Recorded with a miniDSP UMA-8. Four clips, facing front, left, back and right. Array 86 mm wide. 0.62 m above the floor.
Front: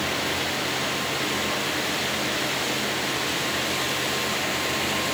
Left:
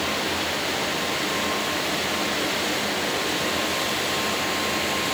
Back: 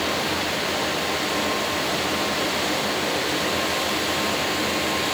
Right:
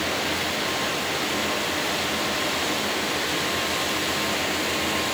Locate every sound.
Only background noise.